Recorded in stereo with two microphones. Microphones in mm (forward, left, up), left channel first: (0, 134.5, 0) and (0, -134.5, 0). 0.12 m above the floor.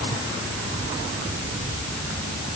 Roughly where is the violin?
I don't hear a violin.